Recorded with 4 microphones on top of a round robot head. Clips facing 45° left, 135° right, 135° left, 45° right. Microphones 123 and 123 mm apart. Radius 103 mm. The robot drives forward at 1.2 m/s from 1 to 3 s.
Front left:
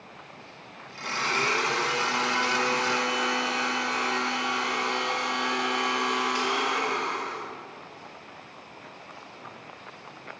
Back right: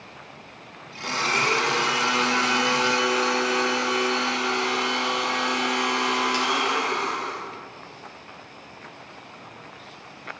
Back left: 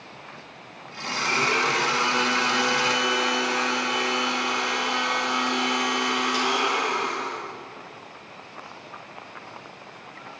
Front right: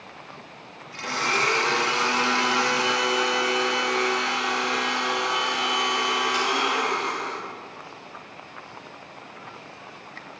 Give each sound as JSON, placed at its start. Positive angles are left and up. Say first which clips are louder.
{"t": 1.0, "sound": "a blender", "louder": "back right 3 dB, front right 1 dB", "azimuth_deg": -75, "distance_m": 1.6}